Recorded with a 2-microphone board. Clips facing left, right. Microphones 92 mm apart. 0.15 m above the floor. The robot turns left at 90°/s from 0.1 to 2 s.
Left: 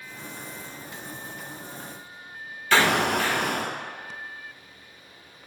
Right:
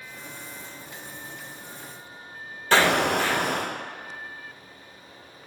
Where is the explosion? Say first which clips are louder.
Right 1 dB; 40° right (ahead or behind), 1.6 m.